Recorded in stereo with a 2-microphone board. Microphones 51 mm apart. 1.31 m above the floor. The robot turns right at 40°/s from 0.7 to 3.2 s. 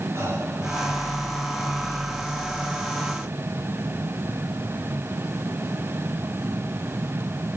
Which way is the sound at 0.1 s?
65° right (ahead or behind).